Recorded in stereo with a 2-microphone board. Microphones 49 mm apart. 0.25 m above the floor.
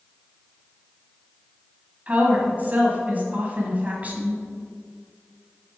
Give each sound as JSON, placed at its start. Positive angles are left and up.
{"t": 2.1, "sound": "a woman speaking", "side_deg": -35, "distance_m": 1.6}